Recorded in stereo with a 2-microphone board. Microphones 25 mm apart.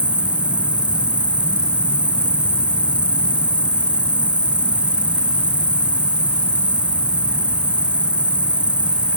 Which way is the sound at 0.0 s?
90° right.